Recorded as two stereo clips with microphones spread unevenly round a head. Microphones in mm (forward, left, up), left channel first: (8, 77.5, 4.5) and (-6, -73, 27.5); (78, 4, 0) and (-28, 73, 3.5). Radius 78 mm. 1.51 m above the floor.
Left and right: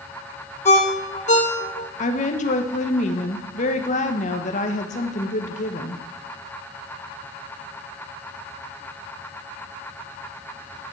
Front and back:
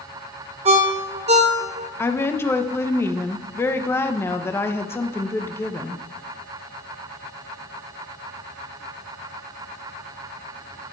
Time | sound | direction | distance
0.7 | a ringtone | 130° left | 1.7 m
2.0 | a woman speaking | 40° left | 1.4 m